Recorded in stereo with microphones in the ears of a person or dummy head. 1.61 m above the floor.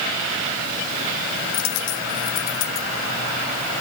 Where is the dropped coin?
60° left (ahead or behind).